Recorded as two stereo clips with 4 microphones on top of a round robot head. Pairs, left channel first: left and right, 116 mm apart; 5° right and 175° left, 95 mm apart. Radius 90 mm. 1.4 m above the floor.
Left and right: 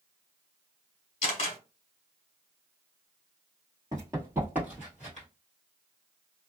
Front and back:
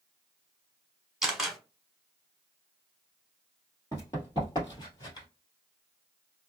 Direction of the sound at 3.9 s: 45° right.